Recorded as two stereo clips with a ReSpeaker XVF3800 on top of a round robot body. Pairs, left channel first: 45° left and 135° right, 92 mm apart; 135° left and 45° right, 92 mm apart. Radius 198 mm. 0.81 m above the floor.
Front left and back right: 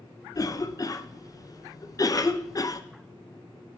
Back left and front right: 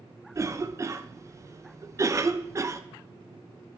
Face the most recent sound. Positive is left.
turn(degrees=5)